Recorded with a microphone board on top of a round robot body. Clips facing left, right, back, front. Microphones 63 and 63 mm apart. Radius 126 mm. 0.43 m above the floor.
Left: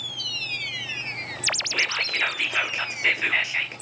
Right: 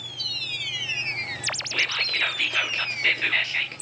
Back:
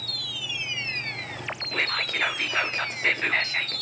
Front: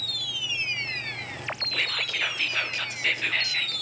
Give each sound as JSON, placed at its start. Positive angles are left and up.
{"t": 1.7, "sound": "whispering", "azimuth_deg": 160, "distance_m": 0.9}